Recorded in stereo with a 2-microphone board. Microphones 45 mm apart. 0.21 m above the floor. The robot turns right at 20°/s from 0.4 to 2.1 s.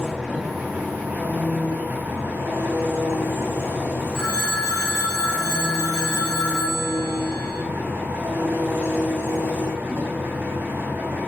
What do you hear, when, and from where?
0.0 s an engine running: 170° right, 2.5 m; by 11.3 s 135° right, 2.5 m
4.1 s a phone ringing: 15° left (ahead or behind), 5.5 m